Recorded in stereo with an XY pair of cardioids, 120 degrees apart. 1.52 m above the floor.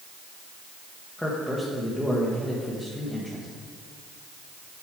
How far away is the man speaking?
About 1.3 m.